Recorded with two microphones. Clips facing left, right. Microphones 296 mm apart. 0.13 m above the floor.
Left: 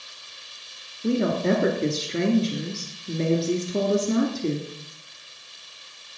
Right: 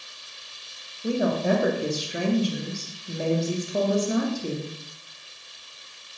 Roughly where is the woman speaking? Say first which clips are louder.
Left 2 dB; left.